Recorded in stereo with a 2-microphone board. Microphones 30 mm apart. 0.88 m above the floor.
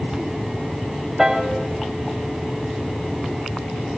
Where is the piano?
15° right (ahead or behind), 0.8 m.